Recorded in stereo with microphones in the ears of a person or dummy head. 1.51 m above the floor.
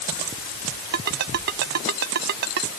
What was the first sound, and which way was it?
A ringtone, 55° right (ahead or behind).